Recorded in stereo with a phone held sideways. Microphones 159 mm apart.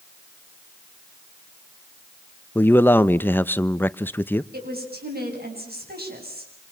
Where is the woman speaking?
75° right (ahead or behind), 8.5 m.